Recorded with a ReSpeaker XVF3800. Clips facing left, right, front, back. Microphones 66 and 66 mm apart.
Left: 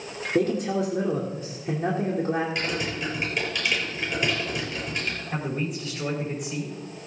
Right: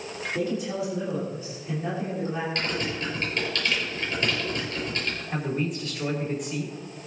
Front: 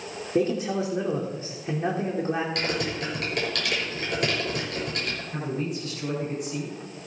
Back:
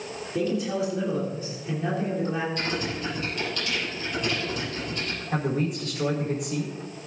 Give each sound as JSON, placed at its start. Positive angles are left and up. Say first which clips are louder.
{"t": 0.3, "sound": "a man speaking", "louder": "left 5 dB, front 2 dB", "azimuth_deg": 60, "distance_m": 2.5}
{"t": 2.5, "sound": "typing on a keyboard", "louder": "even, front 1 dB", "azimuth_deg": 15, "distance_m": 5.5}
{"t": 5.3, "sound": "a man speaking", "louder": "right 2 dB, back 6 dB", "azimuth_deg": 180, "distance_m": 4.0}